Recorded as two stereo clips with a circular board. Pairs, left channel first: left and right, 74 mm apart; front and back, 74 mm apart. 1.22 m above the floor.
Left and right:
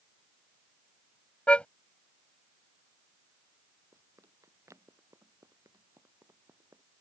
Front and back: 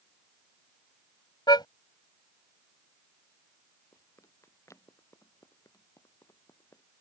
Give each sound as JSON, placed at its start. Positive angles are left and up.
{"t": 1.5, "sound": "a car horn", "azimuth_deg": 15}
{"t": 3.9, "sound": "running footsteps", "azimuth_deg": -45}